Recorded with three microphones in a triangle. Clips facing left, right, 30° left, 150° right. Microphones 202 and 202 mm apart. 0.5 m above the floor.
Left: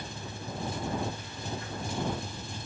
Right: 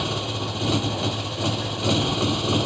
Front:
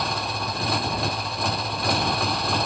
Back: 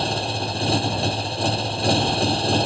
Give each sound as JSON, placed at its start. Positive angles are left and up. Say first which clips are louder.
{"t": 0.0, "sound": "a motorcycle", "louder": "right 13 dB, back 4 dB", "azimuth_deg": -90}